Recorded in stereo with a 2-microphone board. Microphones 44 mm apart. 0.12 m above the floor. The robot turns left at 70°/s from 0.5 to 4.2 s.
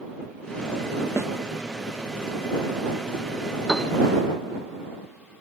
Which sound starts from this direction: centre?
A piano, at 3.7 s.